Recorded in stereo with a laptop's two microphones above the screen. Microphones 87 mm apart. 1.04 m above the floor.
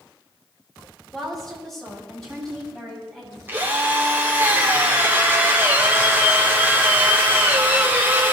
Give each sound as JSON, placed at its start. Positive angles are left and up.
{"t": 1.1, "sound": "a woman speaking", "side_deg": 5, "distance_m": 3.0}
{"t": 3.5, "sound": "a drill", "side_deg": -25, "distance_m": 1.3}